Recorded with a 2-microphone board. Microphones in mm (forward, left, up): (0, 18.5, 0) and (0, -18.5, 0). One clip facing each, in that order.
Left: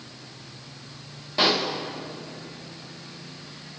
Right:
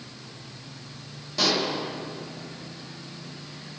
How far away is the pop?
About 1.2 m.